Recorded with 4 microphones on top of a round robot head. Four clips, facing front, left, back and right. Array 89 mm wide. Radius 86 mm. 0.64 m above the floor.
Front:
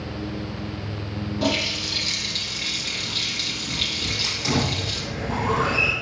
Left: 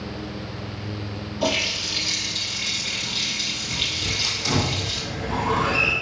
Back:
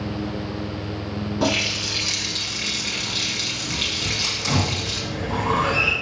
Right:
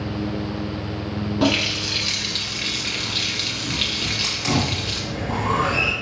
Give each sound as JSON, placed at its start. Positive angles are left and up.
{"t": 1.4, "sound": "a running tap", "azimuth_deg": -115, "distance_m": 1.3}
{"t": 4.0, "sound": "a hiss", "azimuth_deg": -50, "distance_m": 2.0}